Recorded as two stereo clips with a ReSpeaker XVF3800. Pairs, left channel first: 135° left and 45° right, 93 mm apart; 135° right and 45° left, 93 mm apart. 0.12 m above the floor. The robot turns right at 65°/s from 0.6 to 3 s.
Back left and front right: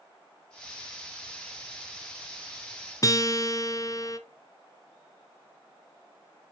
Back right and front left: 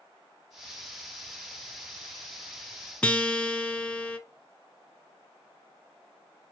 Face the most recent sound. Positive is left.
turn(degrees=155)